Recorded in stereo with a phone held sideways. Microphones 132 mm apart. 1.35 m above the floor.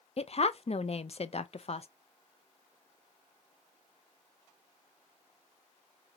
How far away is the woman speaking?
About 0.6 m.